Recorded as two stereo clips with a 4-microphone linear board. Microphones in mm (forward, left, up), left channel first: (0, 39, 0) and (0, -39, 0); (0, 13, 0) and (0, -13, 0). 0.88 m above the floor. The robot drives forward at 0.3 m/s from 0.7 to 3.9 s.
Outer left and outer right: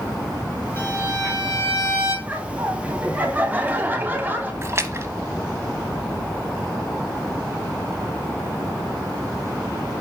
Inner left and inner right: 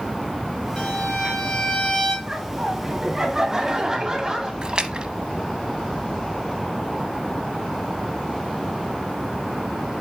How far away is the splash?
About 0.9 m.